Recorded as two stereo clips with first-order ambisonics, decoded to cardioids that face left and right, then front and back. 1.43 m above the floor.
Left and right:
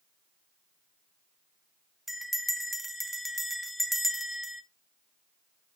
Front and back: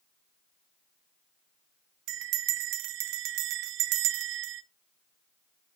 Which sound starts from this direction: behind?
A bell, at 2.1 s.